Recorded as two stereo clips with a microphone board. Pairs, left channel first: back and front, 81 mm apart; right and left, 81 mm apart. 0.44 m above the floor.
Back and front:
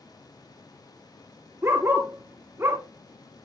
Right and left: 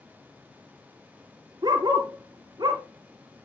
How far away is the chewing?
No chewing in this recording.